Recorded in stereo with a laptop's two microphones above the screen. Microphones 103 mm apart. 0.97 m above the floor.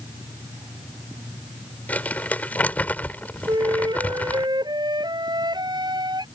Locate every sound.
1.9 s crumpling: 15° left (ahead or behind)
3.5 s a flute: 45° right (ahead or behind)